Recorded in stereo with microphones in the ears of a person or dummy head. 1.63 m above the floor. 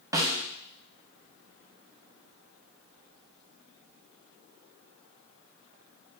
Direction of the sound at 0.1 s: 20° right (ahead or behind).